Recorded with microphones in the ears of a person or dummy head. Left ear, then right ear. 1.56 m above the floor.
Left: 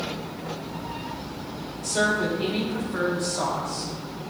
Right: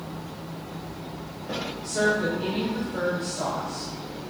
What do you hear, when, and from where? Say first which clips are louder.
1.8 s a woman speaking: left 1 dB; 35° left (ahead or behind), 3.5 m